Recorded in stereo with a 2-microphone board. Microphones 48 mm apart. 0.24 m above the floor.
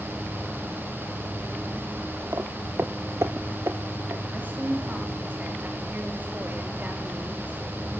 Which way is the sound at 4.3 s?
35° right (ahead or behind).